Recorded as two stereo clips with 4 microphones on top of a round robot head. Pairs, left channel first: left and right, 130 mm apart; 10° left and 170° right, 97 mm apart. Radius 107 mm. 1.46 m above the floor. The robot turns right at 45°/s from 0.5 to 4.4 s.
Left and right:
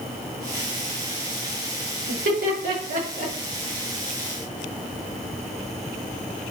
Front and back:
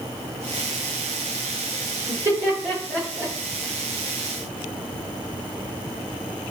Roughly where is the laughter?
Right.